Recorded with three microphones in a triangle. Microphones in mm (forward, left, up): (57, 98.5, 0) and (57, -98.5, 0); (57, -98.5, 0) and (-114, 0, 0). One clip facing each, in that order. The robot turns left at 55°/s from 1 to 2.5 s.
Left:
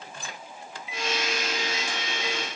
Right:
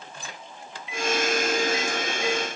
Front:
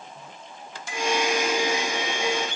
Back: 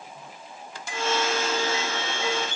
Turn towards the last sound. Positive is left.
No sound to turn to.